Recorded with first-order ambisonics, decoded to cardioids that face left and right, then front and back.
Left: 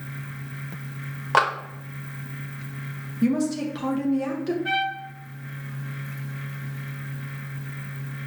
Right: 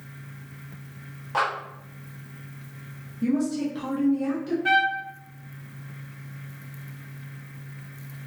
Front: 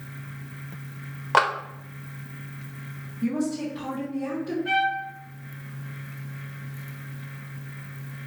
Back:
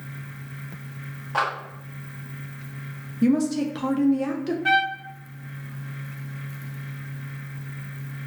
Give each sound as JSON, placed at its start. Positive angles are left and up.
{"t": 1.3, "sound": "a clap", "azimuth_deg": 45, "distance_m": 0.7}
{"t": 3.2, "sound": "a woman speaking", "azimuth_deg": 150, "distance_m": 0.6}
{"t": 4.7, "sound": "a trumpet", "azimuth_deg": -155, "distance_m": 0.5}